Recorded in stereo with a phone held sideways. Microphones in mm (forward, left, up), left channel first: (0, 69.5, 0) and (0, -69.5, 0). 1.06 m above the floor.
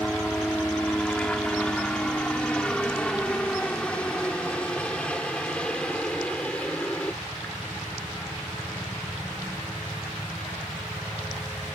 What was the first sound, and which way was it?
A helicopter, 5° left (ahead or behind).